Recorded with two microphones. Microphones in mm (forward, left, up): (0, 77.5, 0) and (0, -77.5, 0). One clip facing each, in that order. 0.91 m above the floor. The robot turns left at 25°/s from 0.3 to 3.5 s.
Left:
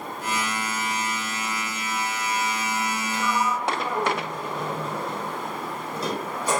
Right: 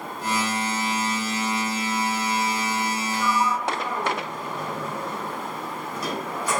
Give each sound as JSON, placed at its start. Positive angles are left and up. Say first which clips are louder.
{"t": 3.1, "sound": "a sliding door", "louder": "right 1 dB", "side_deg": 35, "distance_m": 3.5}